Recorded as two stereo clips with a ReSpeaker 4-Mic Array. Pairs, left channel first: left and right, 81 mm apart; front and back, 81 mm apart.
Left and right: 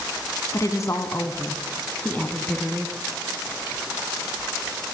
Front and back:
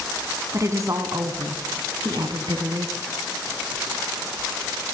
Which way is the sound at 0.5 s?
130° left.